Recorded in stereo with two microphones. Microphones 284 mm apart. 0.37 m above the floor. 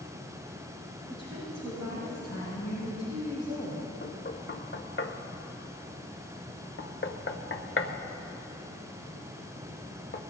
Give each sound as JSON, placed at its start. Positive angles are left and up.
{"t": 1.1, "sound": "a woman speaking", "side_deg": -70, "distance_m": 4.5}
{"t": 4.0, "sound": "knocking", "side_deg": 45, "distance_m": 0.6}